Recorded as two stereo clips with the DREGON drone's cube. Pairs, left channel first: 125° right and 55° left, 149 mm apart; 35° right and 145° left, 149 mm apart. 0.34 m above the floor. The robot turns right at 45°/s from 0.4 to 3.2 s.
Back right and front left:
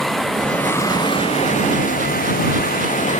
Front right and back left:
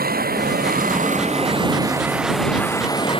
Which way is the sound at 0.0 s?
145° left.